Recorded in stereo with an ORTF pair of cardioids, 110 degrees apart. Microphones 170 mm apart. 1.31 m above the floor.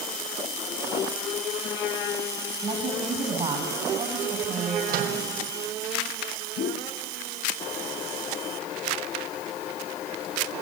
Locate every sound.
2.6 s a woman speaking: 30° right, 7 m
4.9 s a microwave: 60° right, 5.5 m
6.6 s a whoosh: 70° left, 1.6 m